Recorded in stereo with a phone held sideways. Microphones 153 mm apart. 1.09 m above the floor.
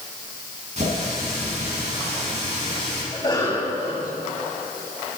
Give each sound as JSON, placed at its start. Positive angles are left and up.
{"t": 0.8, "sound": "a running tap", "side_deg": -50, "distance_m": 7.0}
{"t": 3.1, "sound": "a cough", "side_deg": 35, "distance_m": 7.0}